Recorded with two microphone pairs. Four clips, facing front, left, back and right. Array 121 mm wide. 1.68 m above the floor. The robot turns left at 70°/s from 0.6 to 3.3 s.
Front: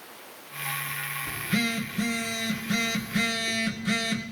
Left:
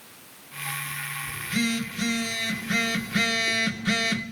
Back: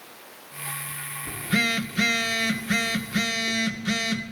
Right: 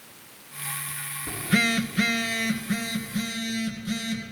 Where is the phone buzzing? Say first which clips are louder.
Right 3 dB, back 3 dB; 90° right, 1.9 m; by 4.2 s 130° left, 1.9 m.